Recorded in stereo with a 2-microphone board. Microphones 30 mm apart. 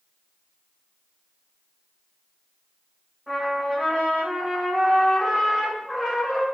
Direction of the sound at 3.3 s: 15° left (ahead or behind).